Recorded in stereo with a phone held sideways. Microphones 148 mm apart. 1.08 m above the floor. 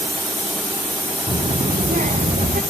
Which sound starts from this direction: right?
A child speaking, at 1.3 s.